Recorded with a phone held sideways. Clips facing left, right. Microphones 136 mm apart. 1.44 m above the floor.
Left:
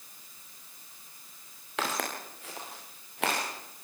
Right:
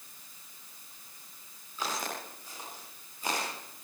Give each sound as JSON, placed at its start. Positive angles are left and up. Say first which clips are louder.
{"t": 1.8, "sound": "footsteps", "louder": "left 3 dB", "side_deg": 80, "distance_m": 8.5}